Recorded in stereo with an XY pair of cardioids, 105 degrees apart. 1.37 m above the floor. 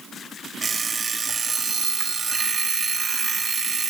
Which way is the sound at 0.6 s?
30° right.